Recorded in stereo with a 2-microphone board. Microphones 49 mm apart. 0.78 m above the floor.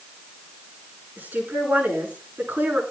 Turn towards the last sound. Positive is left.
turn(degrees=-35)  # may be behind; listen again after turning